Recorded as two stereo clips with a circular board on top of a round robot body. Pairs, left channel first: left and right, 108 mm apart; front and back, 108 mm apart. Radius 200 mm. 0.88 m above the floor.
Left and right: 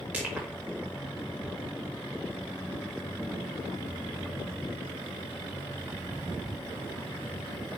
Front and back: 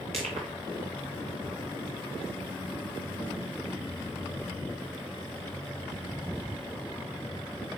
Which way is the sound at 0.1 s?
165° right.